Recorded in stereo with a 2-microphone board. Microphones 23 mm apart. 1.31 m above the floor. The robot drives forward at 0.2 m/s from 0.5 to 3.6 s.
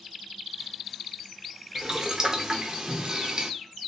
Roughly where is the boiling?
Right.